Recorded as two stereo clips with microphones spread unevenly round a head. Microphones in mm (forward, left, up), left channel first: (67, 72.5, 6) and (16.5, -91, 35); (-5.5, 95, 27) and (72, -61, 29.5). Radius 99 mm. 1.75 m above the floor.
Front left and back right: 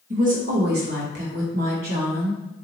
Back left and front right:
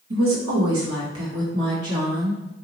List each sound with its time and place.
0.1 s a woman speaking: 65° right, 1.2 m; by 2.4 s 120° right, 1.5 m